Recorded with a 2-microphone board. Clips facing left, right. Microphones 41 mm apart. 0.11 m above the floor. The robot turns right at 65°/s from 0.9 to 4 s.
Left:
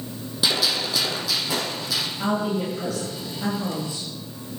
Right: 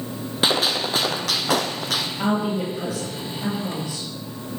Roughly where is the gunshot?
Behind right.